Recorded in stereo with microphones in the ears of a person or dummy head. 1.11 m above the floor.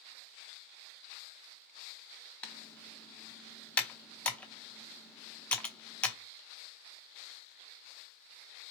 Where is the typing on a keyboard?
10° left (ahead or behind), 0.7 m.